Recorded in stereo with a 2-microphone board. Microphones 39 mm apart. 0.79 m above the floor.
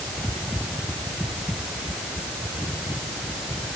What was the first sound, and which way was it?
Only background noise.